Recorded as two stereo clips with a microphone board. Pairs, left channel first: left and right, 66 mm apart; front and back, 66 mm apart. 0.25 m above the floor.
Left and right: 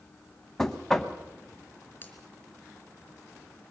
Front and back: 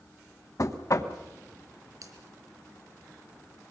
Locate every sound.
0.6 s knocking: 10° left, 1.2 m
2.0 s a finger snap: 150° left, 3.5 m